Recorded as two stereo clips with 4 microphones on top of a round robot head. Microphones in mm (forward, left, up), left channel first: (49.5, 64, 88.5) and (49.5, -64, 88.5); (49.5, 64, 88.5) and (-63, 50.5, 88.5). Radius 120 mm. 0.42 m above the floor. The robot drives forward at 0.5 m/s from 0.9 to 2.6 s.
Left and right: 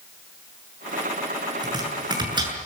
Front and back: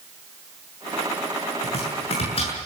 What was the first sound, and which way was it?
Chopping, 35° right.